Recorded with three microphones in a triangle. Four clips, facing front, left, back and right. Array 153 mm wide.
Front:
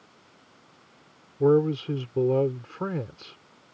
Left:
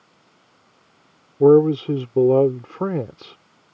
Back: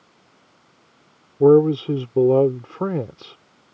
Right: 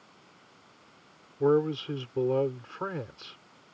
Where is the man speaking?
125° left.